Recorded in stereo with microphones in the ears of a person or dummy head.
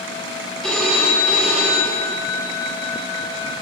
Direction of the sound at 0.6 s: 5° left (ahead or behind).